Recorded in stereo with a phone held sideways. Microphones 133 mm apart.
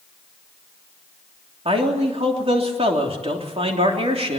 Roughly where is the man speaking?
Right.